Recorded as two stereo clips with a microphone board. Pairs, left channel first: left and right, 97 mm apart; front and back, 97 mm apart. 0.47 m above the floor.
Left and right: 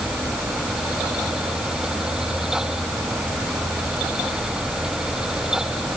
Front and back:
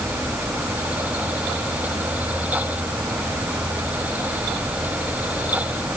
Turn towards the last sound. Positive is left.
No sound to turn to.